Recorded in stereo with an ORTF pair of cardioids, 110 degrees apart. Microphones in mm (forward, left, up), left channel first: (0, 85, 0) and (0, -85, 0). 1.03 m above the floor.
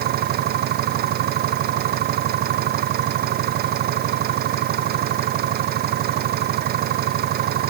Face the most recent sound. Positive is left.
turn(degrees=-65)